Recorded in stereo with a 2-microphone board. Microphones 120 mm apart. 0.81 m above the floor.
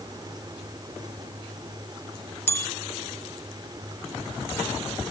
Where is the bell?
20° left (ahead or behind).